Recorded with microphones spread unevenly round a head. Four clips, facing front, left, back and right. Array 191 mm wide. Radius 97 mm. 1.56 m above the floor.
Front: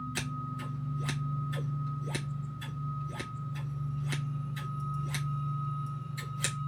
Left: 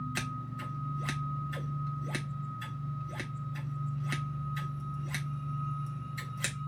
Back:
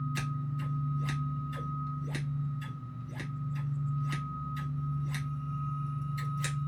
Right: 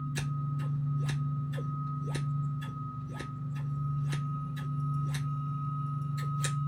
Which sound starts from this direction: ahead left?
Scissors, at 0.1 s.